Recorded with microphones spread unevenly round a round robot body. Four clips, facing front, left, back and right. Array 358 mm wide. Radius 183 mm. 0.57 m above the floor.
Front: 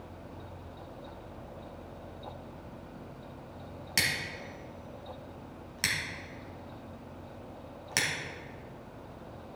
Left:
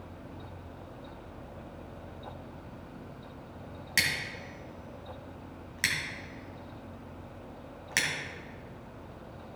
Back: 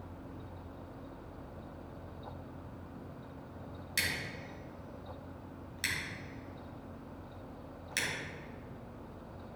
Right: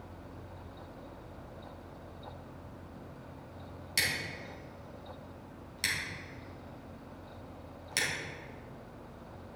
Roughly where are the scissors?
Ahead.